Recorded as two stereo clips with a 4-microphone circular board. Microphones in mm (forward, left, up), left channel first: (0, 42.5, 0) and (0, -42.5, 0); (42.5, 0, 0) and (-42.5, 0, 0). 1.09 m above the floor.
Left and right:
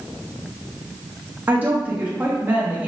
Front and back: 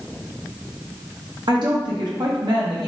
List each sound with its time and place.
1.5 s a woman speaking: 155° right, 1.3 m